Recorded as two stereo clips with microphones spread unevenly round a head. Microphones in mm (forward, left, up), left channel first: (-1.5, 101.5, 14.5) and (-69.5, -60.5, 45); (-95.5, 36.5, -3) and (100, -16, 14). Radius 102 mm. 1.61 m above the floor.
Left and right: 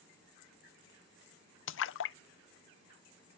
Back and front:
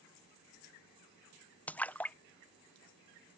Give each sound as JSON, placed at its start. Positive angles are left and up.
{"t": 1.7, "sound": "a splash", "azimuth_deg": 80}